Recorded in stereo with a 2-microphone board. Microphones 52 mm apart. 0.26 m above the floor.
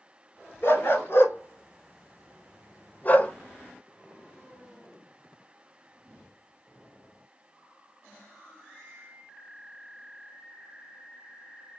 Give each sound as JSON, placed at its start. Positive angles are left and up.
{"t": 0.6, "sound": "a dog barking", "side_deg": 45, "distance_m": 1.5}